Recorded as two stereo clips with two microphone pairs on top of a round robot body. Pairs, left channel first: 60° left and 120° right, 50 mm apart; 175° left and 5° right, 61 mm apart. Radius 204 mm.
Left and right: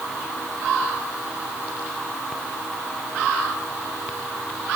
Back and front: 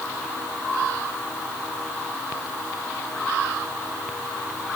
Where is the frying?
No frying in this recording.